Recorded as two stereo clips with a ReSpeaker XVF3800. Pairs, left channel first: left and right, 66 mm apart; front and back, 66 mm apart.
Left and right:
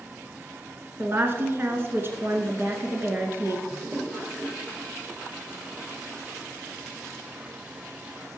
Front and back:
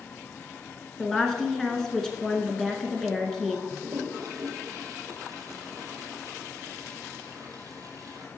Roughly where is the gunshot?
I don't hear a gunshot.